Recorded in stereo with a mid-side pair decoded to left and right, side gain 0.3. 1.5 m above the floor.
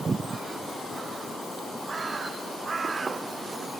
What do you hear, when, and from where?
Only background noise.